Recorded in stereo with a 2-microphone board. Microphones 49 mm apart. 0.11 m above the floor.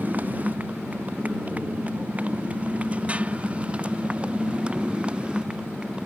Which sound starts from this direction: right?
A motorcycle, at 0.0 s.